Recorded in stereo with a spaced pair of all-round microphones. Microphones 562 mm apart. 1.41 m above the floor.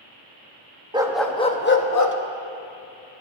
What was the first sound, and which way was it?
A dog barking, 10° right (ahead or behind).